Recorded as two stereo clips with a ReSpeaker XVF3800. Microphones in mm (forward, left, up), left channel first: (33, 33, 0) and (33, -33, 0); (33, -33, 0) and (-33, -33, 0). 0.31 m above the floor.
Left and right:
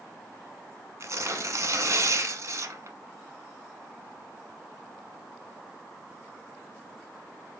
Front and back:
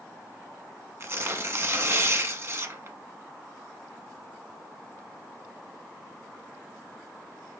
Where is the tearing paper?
130° right, 0.8 m.